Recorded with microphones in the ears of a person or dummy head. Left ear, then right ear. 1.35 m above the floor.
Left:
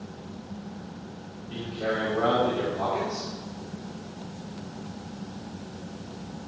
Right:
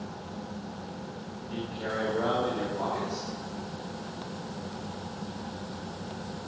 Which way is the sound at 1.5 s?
Centre (ahead or behind).